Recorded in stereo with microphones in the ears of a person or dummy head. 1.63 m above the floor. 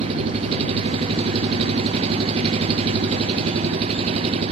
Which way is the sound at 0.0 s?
35° right (ahead or behind).